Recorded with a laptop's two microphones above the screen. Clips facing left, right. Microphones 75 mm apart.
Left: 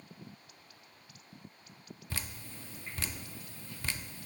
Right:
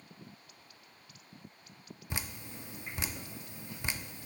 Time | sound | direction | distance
2.1 | dripping | 15° right (ahead or behind) | 0.5 m